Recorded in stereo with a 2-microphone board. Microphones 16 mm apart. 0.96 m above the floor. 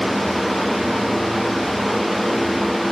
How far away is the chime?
No chime in this recording.